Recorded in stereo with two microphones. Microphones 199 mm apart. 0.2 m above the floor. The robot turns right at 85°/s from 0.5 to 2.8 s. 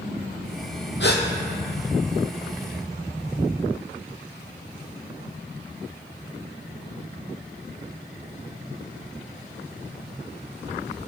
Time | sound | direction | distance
1.0 | a gasp | 65° left (ahead or behind) | 1.5 m